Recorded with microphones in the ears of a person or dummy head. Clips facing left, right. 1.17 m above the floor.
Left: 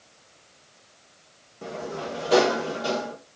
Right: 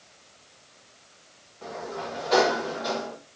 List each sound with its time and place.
1.6 s a sliding door: 40° left (ahead or behind), 1.1 m